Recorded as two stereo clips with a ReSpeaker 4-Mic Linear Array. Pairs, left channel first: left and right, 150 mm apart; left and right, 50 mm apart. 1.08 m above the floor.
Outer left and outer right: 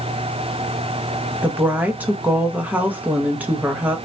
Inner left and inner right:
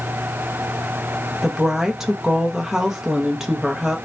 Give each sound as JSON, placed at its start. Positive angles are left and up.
{"t": 1.4, "sound": "a woman speaking", "side_deg": -10, "distance_m": 0.9}